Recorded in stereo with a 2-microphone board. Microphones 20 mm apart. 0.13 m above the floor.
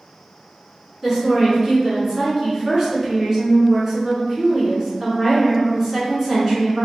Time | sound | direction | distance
1.0 | a woman speaking | 20° right (ahead or behind) | 1.2 m